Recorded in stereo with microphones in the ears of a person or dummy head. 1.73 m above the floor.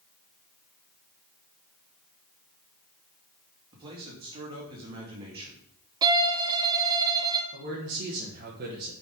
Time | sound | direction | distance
3.7 | a man speaking | 25° right (ahead or behind) | 2.5 m
6.0 | a violin | 25° right (ahead or behind) | 0.7 m
7.5 | a man speaking | 55° right (ahead or behind) | 1.4 m